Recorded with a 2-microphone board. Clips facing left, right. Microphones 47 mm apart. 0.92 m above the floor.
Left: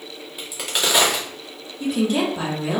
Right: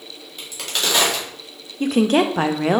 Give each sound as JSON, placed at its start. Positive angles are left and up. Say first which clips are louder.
{"t": 0.4, "sound": "a crack", "louder": "left 1 dB", "side_deg": 10, "distance_m": 1.5}
{"t": 1.8, "sound": "a woman speaking", "louder": "right 4 dB", "side_deg": -55, "distance_m": 0.6}